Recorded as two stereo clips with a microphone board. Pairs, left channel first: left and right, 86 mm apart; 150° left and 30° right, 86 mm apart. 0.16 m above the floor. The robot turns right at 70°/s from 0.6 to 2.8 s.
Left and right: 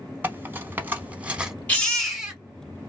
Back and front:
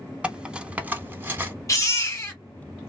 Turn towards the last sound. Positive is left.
turn(degrees=-130)